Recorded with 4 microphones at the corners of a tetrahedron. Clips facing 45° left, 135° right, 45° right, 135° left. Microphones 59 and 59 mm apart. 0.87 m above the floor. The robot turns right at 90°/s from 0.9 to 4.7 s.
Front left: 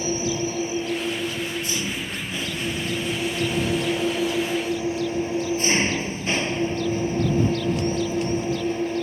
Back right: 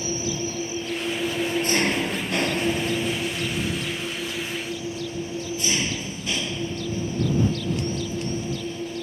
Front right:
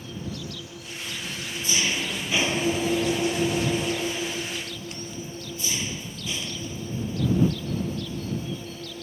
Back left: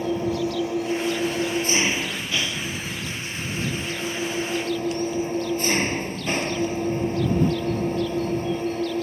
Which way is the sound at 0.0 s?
115° left.